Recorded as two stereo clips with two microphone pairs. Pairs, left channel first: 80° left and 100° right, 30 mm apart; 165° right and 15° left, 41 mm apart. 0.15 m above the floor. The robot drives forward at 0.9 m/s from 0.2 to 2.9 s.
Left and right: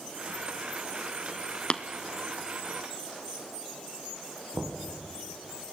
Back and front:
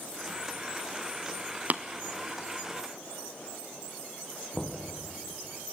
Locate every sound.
1.7 s tapping: 35° left, 0.8 m; by 1.8 s 45° left, 0.7 m
4.5 s knocking: 85° right, 4 m